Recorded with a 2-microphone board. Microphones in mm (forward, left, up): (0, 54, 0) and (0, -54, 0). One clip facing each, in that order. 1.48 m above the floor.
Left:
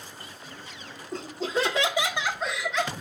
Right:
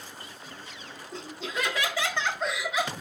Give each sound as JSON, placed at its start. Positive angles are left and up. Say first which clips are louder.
{"t": 1.1, "sound": "laughter", "louder": "left 6 dB", "side_deg": 45, "distance_m": 1.6}